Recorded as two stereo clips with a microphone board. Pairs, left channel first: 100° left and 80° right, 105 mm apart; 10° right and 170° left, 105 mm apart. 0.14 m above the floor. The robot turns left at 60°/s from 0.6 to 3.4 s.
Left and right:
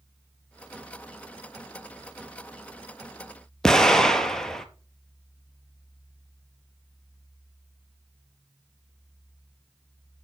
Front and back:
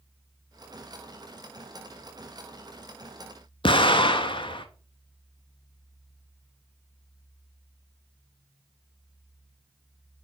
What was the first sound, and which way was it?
An explosion, 15° left.